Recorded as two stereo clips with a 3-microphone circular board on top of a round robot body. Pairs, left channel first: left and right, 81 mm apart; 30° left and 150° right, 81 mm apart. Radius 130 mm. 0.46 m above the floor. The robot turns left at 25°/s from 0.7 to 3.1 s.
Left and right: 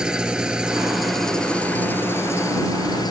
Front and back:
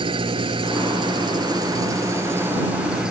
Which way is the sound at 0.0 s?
170° right.